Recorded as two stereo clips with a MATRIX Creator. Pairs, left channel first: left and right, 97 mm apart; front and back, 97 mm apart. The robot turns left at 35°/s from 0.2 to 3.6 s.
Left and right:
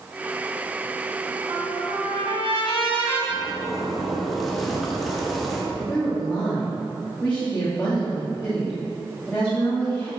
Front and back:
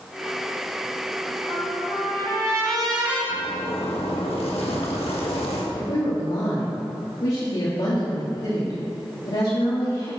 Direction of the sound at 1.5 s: 45° right.